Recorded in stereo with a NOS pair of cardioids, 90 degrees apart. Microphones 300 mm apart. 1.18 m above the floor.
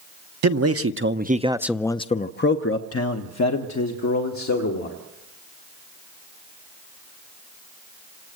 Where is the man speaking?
60° right, 1.0 m; by 5.0 s 70° left, 2 m.